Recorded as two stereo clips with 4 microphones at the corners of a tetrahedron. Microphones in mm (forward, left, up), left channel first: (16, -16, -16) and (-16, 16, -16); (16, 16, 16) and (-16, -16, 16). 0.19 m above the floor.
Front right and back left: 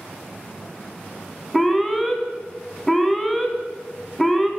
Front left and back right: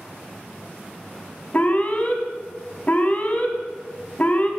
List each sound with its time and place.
1.5 s an alarm: 40° left, 0.9 m